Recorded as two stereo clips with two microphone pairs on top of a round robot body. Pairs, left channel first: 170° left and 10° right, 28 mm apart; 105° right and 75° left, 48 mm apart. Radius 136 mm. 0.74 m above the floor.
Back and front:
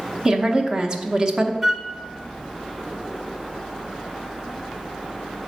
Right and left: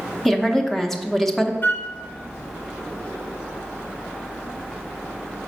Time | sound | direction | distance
0.2 | a woman speaking | 15° right | 0.9 m
1.6 | a flute | 85° right | 0.8 m